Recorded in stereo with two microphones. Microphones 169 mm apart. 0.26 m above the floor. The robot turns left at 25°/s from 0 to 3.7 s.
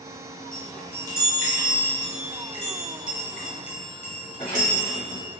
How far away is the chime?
About 1.6 m.